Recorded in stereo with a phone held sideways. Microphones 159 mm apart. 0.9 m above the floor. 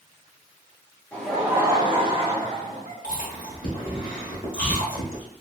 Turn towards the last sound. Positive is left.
turn(degrees=75)  # may be behind; listen again after turning